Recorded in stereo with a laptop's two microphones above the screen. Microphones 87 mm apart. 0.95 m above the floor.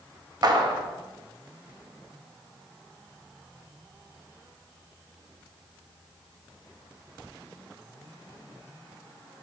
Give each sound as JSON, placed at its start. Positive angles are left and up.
{"t": 0.4, "sound": "a clap", "side_deg": -45, "distance_m": 0.8}